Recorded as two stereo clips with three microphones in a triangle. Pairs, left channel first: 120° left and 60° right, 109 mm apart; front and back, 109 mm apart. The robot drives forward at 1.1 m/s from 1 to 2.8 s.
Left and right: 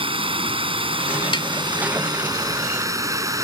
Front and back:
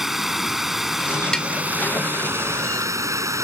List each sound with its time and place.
0.0 s running water: 90° right; by 3.4 s 120° right
1.3 s tapping: 85° left